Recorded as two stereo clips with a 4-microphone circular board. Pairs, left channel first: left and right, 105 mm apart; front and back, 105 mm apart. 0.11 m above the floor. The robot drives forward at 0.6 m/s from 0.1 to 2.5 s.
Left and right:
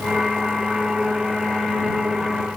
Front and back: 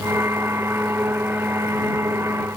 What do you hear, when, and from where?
Only background noise.